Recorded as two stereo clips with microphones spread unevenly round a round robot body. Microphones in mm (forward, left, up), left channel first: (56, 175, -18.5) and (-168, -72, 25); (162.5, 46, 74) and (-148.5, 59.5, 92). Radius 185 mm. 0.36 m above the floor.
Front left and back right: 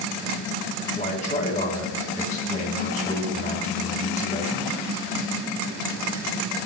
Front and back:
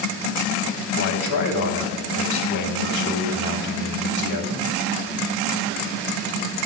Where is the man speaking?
20° right, 2.5 m.